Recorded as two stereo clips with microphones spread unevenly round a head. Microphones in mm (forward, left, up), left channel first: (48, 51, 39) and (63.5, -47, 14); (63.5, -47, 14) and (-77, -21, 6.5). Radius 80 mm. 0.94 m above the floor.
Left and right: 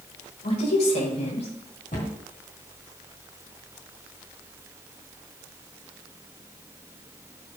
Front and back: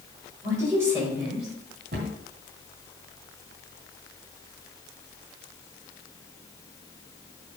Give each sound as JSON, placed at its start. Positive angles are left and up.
{"t": 0.4, "sound": "a woman speaking", "azimuth_deg": 100, "distance_m": 4.5}
{"t": 1.9, "sound": "a cupboard door", "azimuth_deg": 130, "distance_m": 2.5}